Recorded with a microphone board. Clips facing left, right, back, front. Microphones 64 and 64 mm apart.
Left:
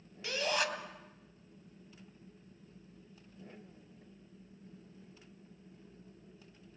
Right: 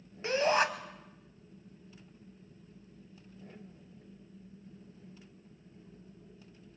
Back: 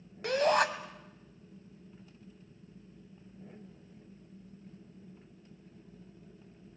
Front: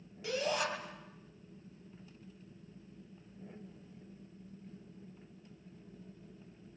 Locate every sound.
0.2 s a shout: 150° right, 2 m